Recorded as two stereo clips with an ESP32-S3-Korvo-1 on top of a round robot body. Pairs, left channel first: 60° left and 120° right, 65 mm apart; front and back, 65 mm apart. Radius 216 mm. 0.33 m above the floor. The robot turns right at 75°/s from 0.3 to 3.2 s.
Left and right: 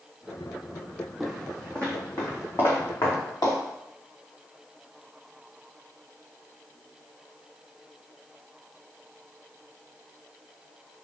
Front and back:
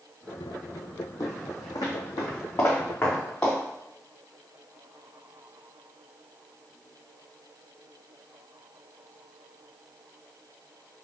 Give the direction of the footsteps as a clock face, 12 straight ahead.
1 o'clock.